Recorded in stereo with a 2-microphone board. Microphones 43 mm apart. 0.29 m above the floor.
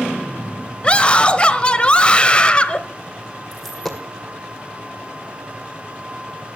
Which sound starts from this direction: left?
A scream, at 0.8 s.